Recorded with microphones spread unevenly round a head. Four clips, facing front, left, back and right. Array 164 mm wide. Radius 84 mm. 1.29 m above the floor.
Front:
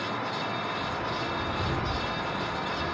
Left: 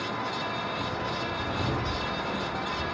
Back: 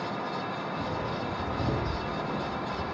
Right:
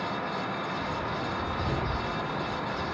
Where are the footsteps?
155° left, 3 m; by 2.8 s 145° left, 4.5 m.